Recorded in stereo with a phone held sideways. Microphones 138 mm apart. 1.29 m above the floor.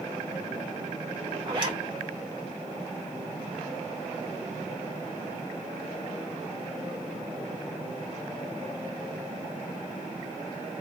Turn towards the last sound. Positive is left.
turn(degrees=-35)  # may be behind; listen again after turning